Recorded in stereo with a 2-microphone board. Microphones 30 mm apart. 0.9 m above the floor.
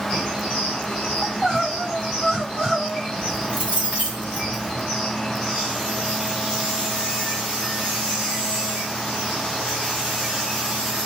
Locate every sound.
1.2 s crying: 25° right (ahead or behind), 3 m
3.1 s keys jangling: 35° right (ahead or behind), 2.5 m